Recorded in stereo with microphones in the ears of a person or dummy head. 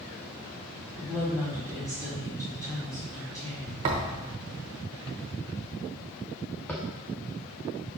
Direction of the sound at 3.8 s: 25° right (ahead or behind).